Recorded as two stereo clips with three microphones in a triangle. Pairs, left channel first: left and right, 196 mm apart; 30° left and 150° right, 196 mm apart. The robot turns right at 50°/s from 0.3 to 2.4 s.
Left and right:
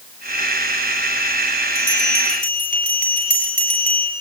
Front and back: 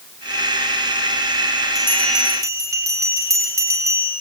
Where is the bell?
105° left, 8 m; by 4.1 s 135° left, 8 m.